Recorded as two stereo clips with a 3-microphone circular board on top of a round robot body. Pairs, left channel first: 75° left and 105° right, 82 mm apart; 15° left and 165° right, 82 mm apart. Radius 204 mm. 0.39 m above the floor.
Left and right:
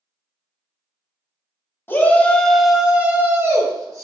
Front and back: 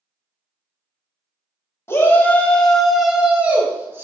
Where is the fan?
No fan in this recording.